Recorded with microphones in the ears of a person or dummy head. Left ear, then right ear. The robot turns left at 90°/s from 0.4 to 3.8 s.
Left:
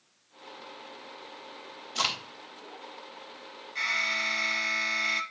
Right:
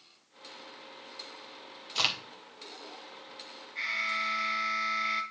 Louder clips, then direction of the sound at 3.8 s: Left 3 dB; 85° left.